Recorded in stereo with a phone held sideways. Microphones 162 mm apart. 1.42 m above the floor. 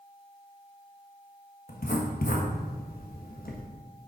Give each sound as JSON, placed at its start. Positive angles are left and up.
{"t": 1.7, "sound": "writing", "side_deg": 70, "distance_m": 1.3}